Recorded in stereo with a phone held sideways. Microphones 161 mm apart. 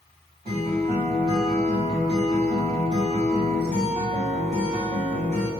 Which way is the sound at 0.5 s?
60° right (ahead or behind).